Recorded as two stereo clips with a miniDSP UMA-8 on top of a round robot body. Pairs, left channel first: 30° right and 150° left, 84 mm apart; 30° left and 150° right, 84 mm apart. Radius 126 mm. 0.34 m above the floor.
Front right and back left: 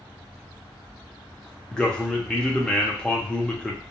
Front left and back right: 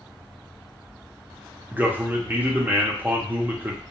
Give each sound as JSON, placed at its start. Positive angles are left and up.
{"t": 1.7, "sound": "a man speaking", "azimuth_deg": -100, "distance_m": 0.9}